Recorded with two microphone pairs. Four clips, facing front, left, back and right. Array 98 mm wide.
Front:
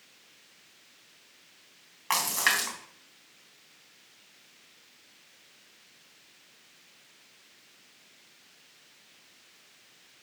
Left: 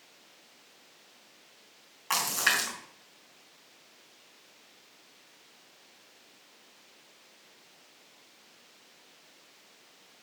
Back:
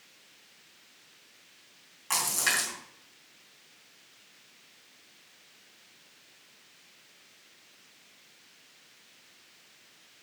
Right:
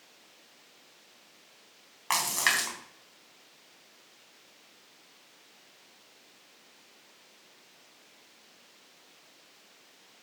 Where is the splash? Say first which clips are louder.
Even, front 3 dB; 40° right, 3.5 m.